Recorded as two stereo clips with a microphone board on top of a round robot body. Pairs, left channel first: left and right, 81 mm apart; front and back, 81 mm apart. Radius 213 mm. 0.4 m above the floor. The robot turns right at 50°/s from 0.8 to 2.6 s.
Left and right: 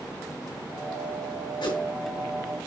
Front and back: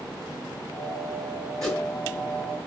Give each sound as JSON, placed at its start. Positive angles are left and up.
{"t": 1.6, "sound": "a whoosh", "azimuth_deg": 80, "distance_m": 5.0}